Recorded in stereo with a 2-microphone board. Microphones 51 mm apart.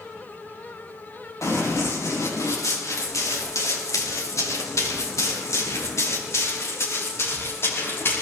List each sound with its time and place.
1.4 s running footsteps: 70° left (ahead or behind), 5.5 m; by 8.2 s 50° left (ahead or behind), 5 m